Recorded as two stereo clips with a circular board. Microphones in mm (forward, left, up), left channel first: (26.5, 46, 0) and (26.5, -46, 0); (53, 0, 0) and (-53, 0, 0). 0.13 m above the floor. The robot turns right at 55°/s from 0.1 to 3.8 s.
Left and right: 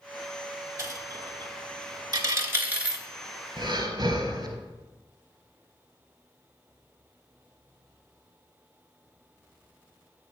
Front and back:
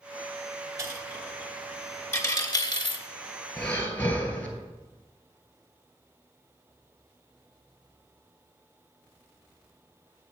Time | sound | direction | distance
0.8 | a dropped coin | 130° right | 0.7 m
3.6 | breathing | 85° right | 1.1 m